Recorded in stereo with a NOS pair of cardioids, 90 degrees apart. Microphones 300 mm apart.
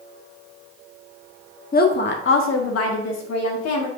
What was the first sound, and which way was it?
A woman speaking, 30° left.